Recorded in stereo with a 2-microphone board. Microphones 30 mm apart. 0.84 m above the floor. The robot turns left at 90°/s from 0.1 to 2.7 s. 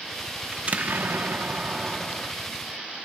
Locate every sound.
0.5 s an explosion: 35° right, 1.0 m; by 2.3 s 165° left, 1.0 m